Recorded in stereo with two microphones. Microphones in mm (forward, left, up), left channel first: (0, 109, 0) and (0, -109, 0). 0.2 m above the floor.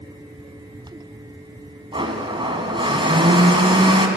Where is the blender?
20° right (ahead or behind), 2 m.